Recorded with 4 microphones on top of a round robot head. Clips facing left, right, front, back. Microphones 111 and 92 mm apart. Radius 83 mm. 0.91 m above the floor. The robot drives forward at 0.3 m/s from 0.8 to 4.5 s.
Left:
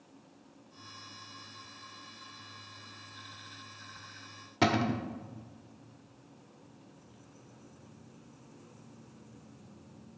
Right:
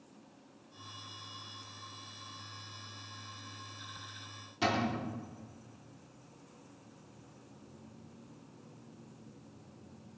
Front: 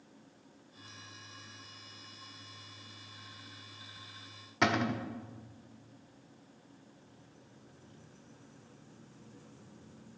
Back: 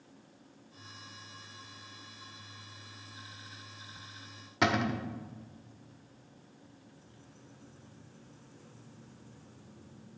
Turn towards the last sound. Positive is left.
turn(degrees=90)